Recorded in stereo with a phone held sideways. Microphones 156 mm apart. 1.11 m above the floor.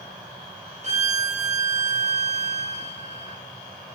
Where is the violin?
50° right (ahead or behind), 0.7 m.